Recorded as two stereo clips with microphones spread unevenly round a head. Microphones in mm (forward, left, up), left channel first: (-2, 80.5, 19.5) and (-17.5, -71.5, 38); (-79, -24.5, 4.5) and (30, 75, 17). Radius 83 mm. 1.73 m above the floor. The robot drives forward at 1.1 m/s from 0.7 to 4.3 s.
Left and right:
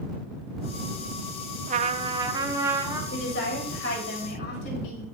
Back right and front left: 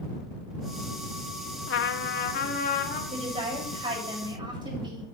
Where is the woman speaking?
95° left, 6.5 m; by 5.0 s 105° left, 7 m.